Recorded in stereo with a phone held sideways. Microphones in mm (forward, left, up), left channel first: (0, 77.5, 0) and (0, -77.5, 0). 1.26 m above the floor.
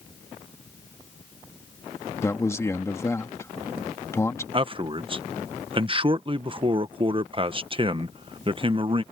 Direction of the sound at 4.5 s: 35° right (ahead or behind).